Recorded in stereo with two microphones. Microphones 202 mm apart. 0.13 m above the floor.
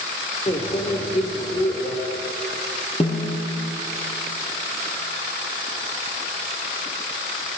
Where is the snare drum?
30° left (ahead or behind), 1.3 m.